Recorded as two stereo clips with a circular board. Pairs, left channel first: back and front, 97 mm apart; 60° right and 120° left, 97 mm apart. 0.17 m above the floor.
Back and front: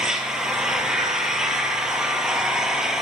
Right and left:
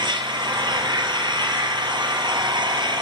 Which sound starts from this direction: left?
An engine running, at 0.0 s.